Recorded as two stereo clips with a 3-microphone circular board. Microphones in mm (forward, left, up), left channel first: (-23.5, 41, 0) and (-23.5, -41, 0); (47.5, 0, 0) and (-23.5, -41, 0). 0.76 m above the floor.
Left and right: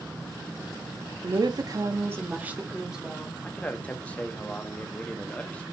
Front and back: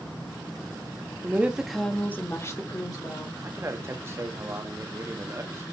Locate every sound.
1.2 s a woman speaking: 90° right, 0.7 m; by 3.3 s 5° right, 1.3 m
3.4 s a man speaking: 160° left, 0.7 m